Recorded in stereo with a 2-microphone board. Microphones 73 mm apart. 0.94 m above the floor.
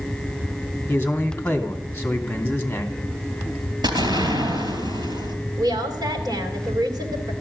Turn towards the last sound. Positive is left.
turn(degrees=-60)  # may be behind; listen again after turning